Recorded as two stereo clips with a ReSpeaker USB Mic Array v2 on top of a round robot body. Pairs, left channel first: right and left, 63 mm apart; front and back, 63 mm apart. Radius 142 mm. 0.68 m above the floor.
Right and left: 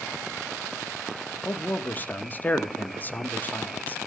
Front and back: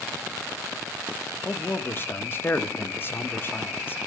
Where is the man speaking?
40° right, 1.2 m.